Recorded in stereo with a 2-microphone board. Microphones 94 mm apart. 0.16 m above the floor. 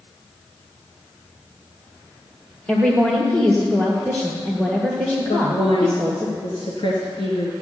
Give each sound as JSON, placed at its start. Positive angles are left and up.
{"t": 2.7, "sound": "a woman speaking", "side_deg": 10, "distance_m": 2.0}
{"t": 5.3, "sound": "a woman speaking", "side_deg": 65, "distance_m": 2.5}